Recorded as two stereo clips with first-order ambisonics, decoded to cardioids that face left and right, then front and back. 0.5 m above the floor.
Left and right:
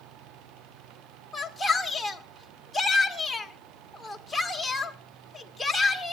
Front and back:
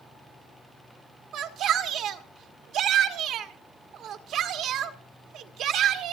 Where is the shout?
170° left, 1.5 m.